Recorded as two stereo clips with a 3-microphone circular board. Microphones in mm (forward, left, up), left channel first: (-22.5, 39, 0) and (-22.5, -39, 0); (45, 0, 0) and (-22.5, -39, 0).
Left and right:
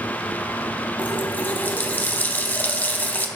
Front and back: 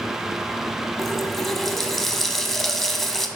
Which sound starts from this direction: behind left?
A running tap, at 1.0 s.